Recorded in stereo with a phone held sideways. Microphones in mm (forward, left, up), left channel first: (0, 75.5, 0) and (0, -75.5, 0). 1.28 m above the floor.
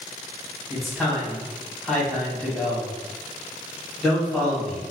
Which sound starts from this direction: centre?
A man speaking, at 0.7 s.